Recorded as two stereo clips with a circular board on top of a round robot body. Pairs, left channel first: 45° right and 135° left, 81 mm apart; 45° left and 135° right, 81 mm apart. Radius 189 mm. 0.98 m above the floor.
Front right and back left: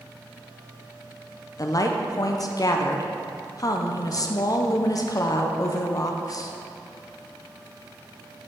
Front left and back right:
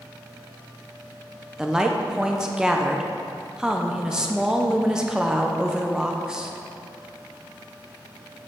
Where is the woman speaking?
55° right, 0.7 m.